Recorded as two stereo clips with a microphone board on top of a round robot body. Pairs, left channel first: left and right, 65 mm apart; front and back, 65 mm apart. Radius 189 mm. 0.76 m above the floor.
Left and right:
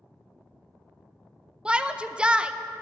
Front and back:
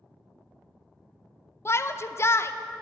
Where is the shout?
20° right, 0.7 m.